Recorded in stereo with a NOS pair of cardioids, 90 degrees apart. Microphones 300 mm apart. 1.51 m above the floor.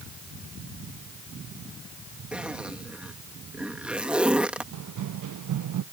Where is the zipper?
5° right.